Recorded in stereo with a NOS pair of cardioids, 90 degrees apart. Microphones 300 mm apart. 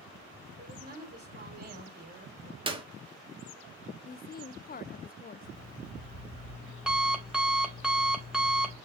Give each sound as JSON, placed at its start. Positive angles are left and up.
{"t": 0.6, "sound": "a woman speaking", "azimuth_deg": -30, "distance_m": 5.5}
{"t": 2.7, "sound": "a clap", "azimuth_deg": -15, "distance_m": 2.0}
{"t": 4.0, "sound": "a woman speaking", "azimuth_deg": 30, "distance_m": 0.8}
{"t": 5.4, "sound": "an alarm clock", "azimuth_deg": -5, "distance_m": 3.5}